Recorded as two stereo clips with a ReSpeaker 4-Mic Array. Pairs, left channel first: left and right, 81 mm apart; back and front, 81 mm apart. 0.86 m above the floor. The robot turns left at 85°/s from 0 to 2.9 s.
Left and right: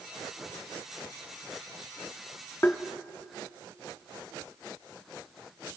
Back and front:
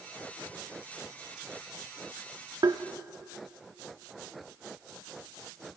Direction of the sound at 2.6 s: 30° left.